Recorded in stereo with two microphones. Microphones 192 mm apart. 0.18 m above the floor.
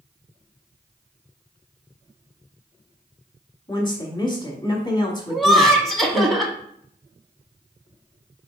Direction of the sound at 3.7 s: 25° left (ahead or behind).